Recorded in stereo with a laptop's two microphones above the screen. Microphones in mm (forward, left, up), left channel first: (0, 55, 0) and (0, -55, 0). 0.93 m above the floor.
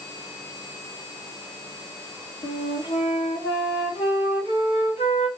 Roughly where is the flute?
Left.